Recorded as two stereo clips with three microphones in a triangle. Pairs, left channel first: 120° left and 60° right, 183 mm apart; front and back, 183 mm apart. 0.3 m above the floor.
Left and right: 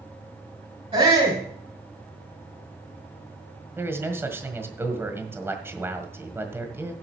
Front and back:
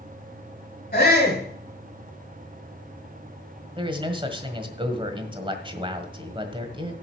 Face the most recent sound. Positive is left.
turn(degrees=-130)